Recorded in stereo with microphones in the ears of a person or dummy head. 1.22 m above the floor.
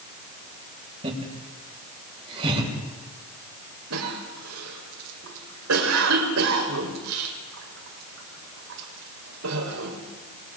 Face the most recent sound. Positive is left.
turn(degrees=-85)